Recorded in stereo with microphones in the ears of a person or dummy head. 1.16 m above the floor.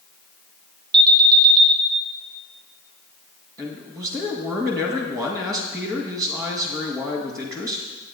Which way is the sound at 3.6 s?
20° right (ahead or behind).